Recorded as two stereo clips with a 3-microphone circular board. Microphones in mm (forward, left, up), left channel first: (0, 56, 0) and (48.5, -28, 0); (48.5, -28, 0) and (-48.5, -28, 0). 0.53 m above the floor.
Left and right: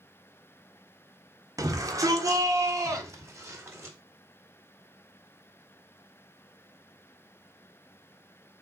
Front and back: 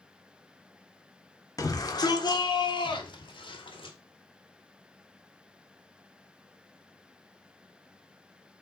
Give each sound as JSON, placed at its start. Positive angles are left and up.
{"t": 1.6, "sound": "a shout", "azimuth_deg": -30, "distance_m": 1.4}